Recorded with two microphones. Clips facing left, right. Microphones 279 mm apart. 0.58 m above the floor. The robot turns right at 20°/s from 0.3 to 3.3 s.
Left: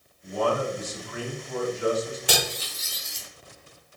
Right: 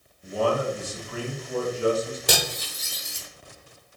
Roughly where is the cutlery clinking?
Right.